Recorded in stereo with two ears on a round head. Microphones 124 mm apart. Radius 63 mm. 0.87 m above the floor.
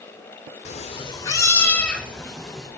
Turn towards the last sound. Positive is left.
turn(degrees=5)  # may be behind; listen again after turning